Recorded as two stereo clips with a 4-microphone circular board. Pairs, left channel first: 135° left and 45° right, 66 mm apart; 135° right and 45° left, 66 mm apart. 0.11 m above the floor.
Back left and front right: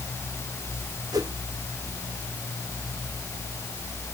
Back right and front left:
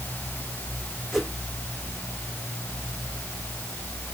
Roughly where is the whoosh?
Ahead right.